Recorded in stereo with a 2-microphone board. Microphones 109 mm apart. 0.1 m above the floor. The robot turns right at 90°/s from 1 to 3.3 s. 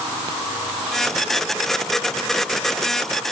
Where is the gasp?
No gasp in this recording.